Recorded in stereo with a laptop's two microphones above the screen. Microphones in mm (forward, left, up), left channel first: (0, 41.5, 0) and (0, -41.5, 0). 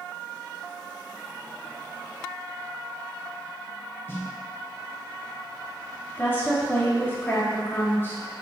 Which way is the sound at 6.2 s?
25° left (ahead or behind).